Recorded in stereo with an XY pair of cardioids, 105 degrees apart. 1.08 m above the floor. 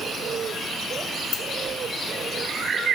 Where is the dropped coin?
70° left, 2.5 m.